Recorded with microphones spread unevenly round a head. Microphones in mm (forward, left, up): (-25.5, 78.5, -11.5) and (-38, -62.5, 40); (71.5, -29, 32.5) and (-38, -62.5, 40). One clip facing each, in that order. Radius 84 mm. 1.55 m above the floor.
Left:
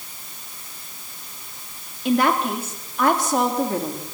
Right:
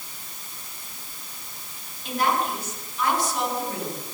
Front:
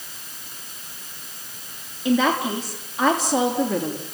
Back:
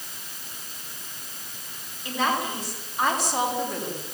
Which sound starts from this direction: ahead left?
A woman speaking, at 2.0 s.